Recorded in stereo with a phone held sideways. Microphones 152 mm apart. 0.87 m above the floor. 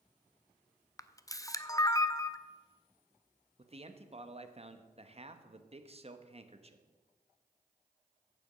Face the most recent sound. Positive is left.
turn(degrees=-45)  # may be behind; listen again after turning